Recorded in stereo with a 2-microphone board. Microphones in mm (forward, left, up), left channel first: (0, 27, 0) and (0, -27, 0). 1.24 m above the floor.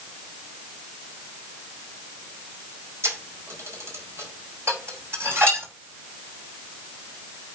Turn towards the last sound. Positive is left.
turn(degrees=-50)  # may be behind; listen again after turning